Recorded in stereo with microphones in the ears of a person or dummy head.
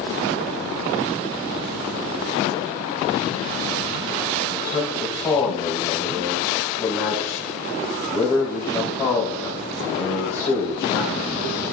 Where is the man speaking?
20° left (ahead or behind), 3 m.